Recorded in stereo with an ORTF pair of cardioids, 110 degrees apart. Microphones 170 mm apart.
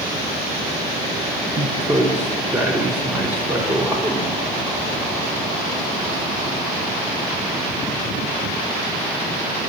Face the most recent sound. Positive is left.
turn(degrees=-10)